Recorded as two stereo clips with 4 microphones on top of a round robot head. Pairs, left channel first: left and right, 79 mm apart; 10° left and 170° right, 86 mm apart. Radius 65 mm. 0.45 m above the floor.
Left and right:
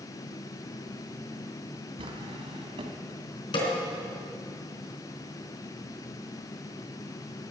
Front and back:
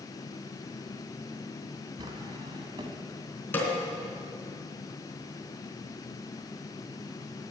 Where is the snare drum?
75° left, 4 m.